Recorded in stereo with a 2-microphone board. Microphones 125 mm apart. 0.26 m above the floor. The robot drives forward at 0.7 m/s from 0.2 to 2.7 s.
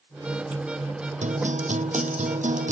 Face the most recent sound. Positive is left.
turn(degrees=-80)